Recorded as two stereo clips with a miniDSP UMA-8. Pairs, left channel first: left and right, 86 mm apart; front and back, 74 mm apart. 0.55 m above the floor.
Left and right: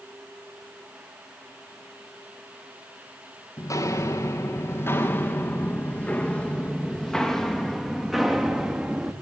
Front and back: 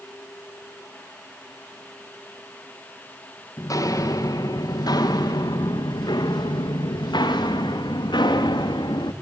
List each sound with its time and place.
3.6 s footsteps: 40° left, 3.5 m; by 9.1 s 10° right, 4.5 m